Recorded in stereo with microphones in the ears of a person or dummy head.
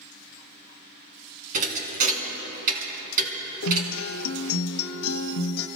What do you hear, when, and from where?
1.5 s a thud: 40° right (ahead or behind), 3 m
3.6 s a guitar: 85° left, 1.2 m